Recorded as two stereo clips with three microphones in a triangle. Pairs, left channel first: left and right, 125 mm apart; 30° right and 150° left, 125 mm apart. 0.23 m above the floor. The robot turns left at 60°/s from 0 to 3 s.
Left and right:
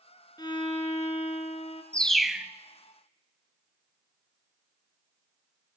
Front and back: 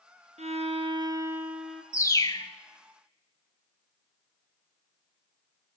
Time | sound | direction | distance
0.4 | a violin | 140° left | 1.1 m
1.9 | a bird | 15° left | 0.6 m